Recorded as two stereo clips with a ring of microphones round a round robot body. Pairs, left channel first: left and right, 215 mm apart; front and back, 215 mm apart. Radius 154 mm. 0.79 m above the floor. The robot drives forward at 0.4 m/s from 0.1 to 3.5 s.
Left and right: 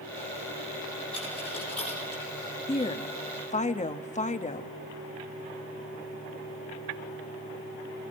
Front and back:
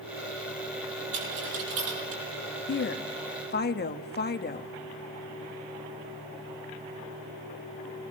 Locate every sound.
1.1 s a dropped coin: 175° left, 8.5 m
2.7 s a woman speaking: 25° left, 1.4 m; by 4.7 s 35° left, 1.1 m